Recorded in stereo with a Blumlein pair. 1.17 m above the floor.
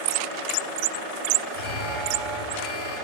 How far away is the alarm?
About 7.5 m.